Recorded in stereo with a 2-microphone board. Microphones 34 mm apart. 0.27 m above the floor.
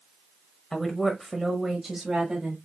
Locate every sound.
0.7 s a woman speaking: 10° left (ahead or behind), 1.1 m; by 2.6 s 25° right (ahead or behind), 1.5 m